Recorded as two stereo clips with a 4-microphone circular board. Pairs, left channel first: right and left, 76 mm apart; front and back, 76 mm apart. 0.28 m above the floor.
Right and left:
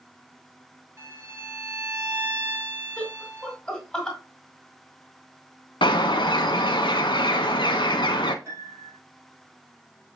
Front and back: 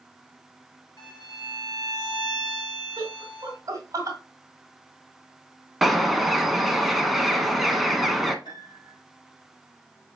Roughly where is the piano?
Ahead left.